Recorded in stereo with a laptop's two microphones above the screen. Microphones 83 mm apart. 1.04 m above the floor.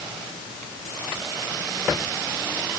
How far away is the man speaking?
I don't hear a man speaking.